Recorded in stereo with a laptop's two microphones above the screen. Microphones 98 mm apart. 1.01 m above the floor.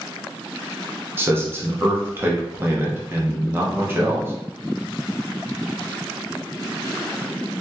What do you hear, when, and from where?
1.2 s a man speaking: 25° right (ahead or behind), 0.5 m